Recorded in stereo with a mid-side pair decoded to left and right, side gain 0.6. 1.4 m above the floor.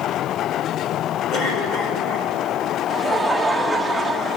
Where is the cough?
55° left, 5 m.